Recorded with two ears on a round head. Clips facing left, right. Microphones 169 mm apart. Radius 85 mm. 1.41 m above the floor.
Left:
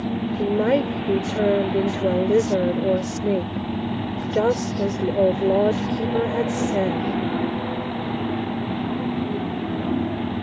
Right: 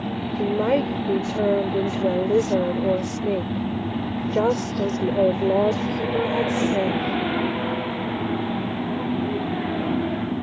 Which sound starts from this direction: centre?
A woman speaking, at 0.4 s.